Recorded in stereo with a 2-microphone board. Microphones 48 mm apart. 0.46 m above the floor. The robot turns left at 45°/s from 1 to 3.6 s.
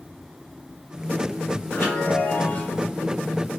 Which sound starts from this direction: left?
A chime, at 1.7 s.